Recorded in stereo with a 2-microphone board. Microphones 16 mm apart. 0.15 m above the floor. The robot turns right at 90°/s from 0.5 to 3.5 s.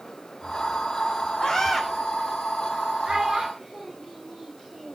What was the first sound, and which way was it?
A scream, 135° left.